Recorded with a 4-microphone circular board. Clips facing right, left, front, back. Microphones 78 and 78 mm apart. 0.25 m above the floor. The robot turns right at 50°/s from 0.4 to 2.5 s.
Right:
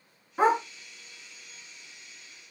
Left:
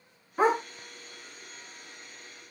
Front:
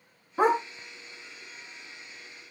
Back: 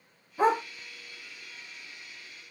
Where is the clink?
I don't hear a clink.